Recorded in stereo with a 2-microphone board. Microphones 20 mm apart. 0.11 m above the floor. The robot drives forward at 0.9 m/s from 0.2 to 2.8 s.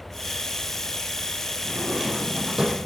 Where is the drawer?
35° right (ahead or behind), 1.8 m; by 2.9 s 25° right (ahead or behind), 2.5 m.